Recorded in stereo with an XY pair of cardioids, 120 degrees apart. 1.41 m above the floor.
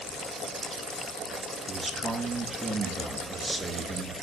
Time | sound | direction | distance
1.7 | a man speaking | 25° right | 2.5 m